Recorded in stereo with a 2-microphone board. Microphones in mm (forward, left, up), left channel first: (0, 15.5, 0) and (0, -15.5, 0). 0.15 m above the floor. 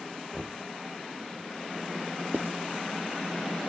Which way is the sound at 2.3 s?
80° right.